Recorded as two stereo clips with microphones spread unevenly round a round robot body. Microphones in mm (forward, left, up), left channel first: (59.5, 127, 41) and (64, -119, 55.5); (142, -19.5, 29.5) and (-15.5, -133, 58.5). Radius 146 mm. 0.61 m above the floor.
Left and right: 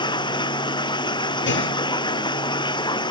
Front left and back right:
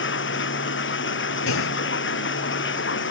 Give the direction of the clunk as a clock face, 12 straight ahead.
10 o'clock.